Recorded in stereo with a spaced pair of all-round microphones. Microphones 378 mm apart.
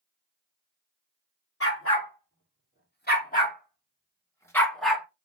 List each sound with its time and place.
1.6 s a dog barking: 35° left (ahead or behind), 2.5 m; by 5.0 s 5° right (ahead or behind), 1.5 m